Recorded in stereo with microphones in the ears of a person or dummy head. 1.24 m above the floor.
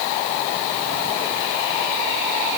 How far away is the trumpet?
I don't hear a trumpet.